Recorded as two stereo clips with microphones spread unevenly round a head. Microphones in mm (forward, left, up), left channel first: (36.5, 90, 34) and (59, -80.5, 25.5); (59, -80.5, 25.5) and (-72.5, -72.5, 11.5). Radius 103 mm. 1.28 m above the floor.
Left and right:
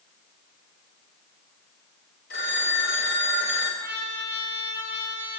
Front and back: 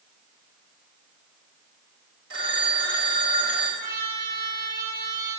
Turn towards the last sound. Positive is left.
turn(degrees=170)